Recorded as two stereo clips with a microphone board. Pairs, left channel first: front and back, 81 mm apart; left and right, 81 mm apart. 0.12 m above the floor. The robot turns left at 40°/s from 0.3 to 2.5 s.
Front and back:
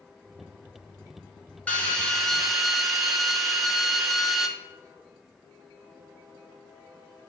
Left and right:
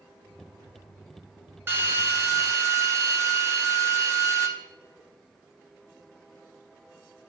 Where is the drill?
55° right, 1.1 m; by 4.5 s 90° right, 1.1 m.